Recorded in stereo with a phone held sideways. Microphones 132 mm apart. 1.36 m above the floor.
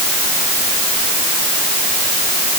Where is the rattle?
No rattle in this recording.